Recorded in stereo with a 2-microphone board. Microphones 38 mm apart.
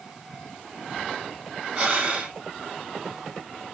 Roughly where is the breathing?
Right.